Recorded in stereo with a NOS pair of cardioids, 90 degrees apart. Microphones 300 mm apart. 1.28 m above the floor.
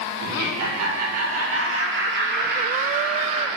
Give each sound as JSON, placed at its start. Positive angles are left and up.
{"t": 0.2, "sound": "laughter", "azimuth_deg": -65, "distance_m": 2.0}